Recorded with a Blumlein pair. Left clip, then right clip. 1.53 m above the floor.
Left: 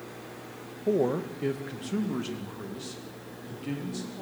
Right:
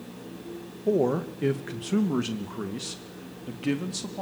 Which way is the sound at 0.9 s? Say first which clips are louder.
Right 2 dB; 5° right.